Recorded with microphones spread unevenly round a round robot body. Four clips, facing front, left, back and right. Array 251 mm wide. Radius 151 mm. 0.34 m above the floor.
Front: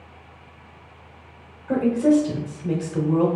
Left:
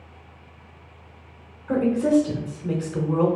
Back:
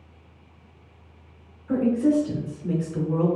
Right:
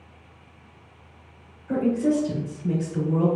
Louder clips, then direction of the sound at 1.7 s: Left 2 dB, front 3 dB; 45° left.